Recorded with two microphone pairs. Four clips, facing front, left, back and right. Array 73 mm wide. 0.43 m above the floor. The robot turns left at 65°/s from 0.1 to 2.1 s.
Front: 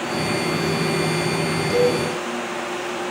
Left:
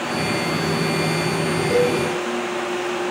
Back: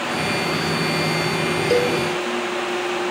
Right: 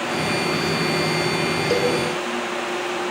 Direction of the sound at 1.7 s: 165° right.